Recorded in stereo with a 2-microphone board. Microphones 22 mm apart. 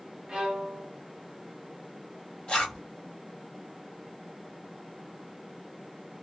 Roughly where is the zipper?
Left.